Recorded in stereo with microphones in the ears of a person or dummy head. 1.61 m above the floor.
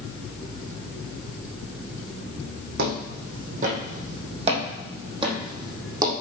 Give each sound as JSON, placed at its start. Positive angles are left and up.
{"t": 2.8, "sound": "footsteps", "side_deg": -55, "distance_m": 3.5}